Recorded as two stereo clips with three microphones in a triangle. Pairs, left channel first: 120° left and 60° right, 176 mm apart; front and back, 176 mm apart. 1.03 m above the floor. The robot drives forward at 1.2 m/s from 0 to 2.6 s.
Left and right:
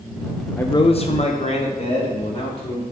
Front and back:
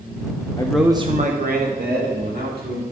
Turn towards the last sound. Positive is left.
turn(degrees=175)